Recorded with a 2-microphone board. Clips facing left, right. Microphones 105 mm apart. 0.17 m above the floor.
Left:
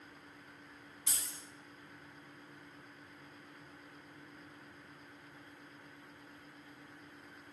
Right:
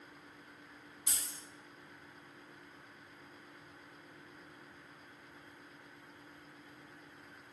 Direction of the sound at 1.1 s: 15° right (ahead or behind).